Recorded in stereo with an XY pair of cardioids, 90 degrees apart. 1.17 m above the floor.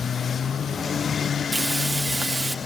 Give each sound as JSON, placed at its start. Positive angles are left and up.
{"t": 1.5, "sound": "frying", "azimuth_deg": -25, "distance_m": 2.0}